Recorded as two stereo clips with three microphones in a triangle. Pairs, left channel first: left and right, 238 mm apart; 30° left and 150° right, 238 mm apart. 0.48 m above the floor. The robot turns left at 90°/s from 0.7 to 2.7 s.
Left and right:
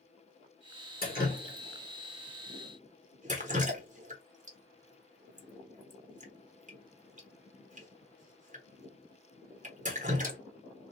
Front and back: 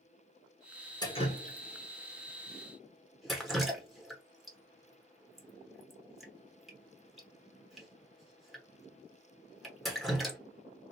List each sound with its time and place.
1.0 s dripping: 90° left, 1.1 m; by 10.4 s 60° right, 1.1 m